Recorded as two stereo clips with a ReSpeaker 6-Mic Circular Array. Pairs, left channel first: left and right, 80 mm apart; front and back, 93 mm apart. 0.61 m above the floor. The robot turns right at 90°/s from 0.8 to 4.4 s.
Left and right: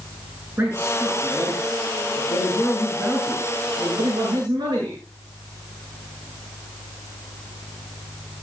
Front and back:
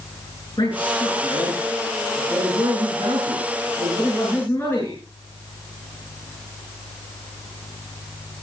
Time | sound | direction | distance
0.6 | a man speaking | 30° right | 8 m